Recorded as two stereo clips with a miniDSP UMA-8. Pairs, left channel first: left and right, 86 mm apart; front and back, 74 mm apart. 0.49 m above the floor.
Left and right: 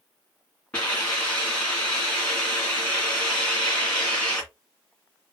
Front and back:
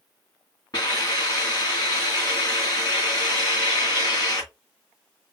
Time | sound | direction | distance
0.7 | a hiss | 15° left | 2.5 m